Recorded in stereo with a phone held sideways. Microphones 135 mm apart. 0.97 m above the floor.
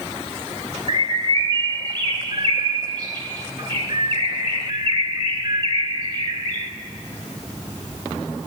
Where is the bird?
30° right (ahead or behind), 2 m.